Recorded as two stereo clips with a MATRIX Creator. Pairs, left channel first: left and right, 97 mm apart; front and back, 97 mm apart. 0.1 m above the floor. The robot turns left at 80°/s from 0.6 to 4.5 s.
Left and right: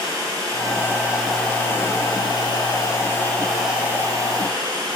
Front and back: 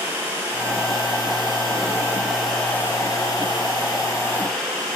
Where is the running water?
125° right, 1.7 m; by 5.0 s 75° right, 1.7 m.